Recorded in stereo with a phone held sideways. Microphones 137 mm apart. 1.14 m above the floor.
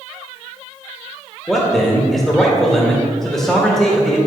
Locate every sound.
1.5 s a man speaking: 5° left (ahead or behind), 1.7 m